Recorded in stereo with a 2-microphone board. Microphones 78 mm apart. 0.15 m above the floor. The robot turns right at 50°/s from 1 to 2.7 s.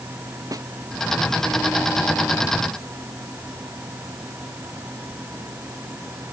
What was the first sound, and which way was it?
A snare drum, 50° right (ahead or behind).